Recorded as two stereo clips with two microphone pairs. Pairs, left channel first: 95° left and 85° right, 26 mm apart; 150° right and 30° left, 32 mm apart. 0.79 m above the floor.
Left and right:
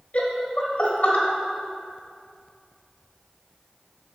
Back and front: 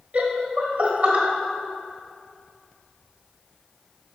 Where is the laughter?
75° left, 1.3 m.